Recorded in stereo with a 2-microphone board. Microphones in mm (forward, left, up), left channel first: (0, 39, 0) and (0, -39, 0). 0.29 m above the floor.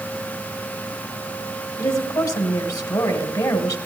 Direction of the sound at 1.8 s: 55° left (ahead or behind).